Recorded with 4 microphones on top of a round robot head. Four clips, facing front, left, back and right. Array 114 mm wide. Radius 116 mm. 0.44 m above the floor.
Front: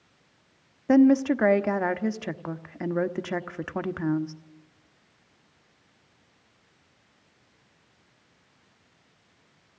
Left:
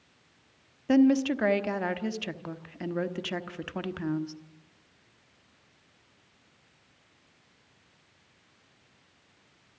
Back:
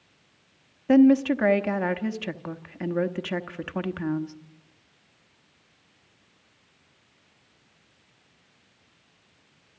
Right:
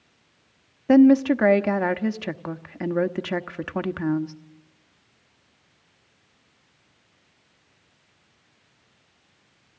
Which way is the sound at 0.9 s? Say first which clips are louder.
Right 7 dB, back 1 dB; 65° right.